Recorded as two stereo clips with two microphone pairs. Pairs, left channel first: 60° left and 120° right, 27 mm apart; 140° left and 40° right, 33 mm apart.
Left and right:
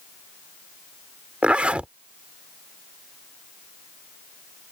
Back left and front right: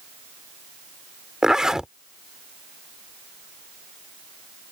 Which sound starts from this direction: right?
A zipper, at 1.4 s.